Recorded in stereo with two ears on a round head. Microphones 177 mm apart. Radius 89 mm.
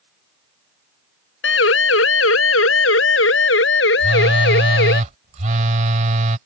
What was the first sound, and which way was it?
A siren, 75° left (ahead or behind).